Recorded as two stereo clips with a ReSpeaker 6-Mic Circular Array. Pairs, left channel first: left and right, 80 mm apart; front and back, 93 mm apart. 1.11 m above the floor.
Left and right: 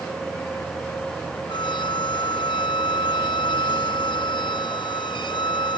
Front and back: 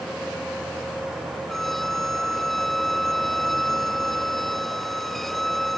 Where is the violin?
85° left.